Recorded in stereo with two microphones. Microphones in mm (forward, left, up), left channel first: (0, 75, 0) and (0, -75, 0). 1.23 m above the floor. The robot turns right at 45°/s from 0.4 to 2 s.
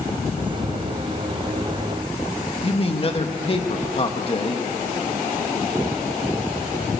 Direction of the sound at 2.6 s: 40° left (ahead or behind).